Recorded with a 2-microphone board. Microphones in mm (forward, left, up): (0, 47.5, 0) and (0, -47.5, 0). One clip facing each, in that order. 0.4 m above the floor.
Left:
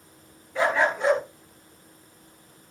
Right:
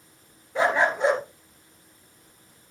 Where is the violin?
I don't hear a violin.